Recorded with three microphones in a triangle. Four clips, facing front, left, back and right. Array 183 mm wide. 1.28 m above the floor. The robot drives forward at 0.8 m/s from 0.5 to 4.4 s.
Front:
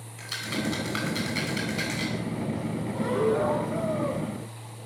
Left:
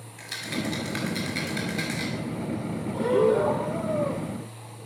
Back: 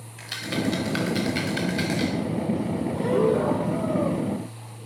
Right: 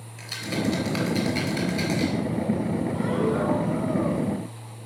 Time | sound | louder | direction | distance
0.2 | a rattle | right 3 dB, back 3 dB | 175° right | 4 m
2.9 | breathing | left 7 dB, back 3 dB | 115° left | 3 m